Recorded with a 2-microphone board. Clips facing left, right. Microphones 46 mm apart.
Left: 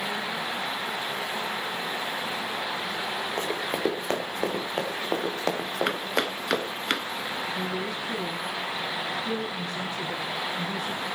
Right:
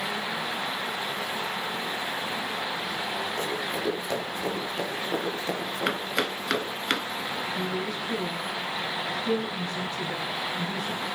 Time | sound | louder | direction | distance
3.4 | running footsteps | left 2 dB | 45° left (ahead or behind) | 3.5 m
5.9 | chopping | right 3 dB | centre (ahead or behind) | 0.9 m
7.5 | a woman speaking | even | 10° left (ahead or behind) | 4.5 m